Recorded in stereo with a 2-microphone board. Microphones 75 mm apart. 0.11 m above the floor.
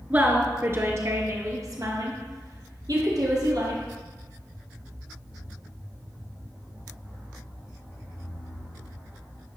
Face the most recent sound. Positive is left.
turn(degrees=-60)  # may be behind; listen again after turning